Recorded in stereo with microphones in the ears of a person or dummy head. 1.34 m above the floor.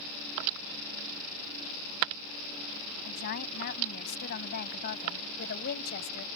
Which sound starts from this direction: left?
A woman speaking, at 3.0 s.